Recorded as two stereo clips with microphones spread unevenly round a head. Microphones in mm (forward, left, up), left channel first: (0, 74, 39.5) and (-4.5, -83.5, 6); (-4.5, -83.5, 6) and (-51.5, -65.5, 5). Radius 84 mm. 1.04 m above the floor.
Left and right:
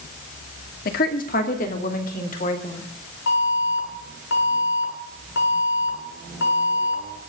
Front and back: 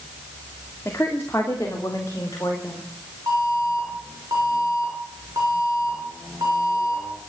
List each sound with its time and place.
0.8 s a woman speaking: 50° left, 2.5 m; by 2.9 s 45° left, 4 m
3.3 s an alarm: 105° left, 8.5 m